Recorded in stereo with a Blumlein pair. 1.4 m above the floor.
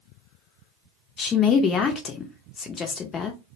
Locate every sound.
1.2 s a woman speaking: 25° left, 0.5 m